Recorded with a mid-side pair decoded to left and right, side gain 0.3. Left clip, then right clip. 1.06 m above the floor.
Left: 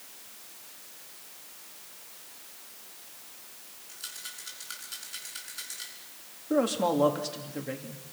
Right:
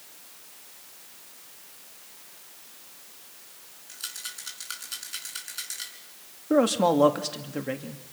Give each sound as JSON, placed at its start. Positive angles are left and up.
{"t": 3.9, "sound": "a rattle", "azimuth_deg": -60, "distance_m": 6.0}
{"t": 6.5, "sound": "a man speaking", "azimuth_deg": -60, "distance_m": 2.0}